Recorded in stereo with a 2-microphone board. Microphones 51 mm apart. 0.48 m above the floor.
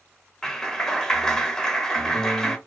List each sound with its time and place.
0.4 s a clap: 10° left (ahead or behind), 0.7 m